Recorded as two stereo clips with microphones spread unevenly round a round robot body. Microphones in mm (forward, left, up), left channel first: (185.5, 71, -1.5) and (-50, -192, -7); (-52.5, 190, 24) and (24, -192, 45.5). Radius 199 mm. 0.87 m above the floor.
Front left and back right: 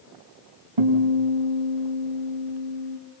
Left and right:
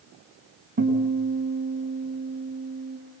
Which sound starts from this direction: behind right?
A guitar, at 0.8 s.